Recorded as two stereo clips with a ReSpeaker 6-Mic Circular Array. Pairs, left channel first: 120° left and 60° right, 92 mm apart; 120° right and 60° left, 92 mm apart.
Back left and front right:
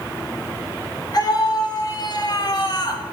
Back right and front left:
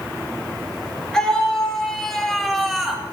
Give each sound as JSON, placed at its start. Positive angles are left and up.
{"t": 1.1, "sound": "a scream", "azimuth_deg": 160, "distance_m": 5.5}